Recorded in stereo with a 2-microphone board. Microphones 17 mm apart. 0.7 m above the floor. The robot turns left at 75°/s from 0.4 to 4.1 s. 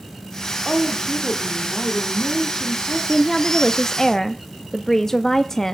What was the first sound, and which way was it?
A woman speaking, 160° right.